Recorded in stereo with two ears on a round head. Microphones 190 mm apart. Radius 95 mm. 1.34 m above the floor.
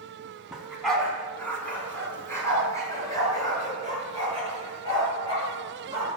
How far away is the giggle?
No giggle in this recording.